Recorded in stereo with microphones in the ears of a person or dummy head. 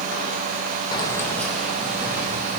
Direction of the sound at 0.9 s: 25° left (ahead or behind).